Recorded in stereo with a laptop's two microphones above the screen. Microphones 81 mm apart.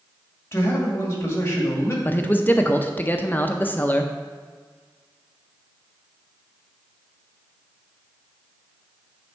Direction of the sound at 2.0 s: 25° left (ahead or behind).